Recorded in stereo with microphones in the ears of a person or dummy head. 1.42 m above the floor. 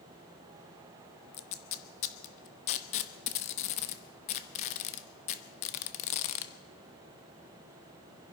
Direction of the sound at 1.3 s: 40° left (ahead or behind).